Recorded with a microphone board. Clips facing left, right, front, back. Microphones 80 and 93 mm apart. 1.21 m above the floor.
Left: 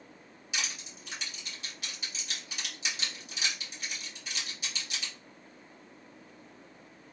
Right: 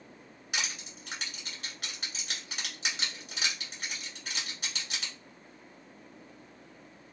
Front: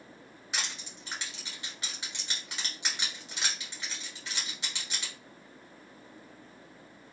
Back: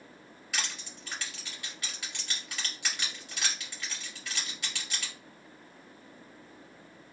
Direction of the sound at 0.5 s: 65° right.